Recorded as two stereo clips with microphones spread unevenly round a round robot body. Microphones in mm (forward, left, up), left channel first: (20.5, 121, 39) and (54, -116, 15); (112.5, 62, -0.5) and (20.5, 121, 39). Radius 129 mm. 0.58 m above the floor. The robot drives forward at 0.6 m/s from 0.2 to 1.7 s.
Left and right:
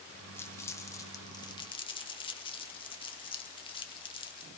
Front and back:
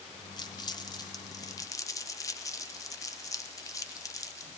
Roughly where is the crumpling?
Ahead.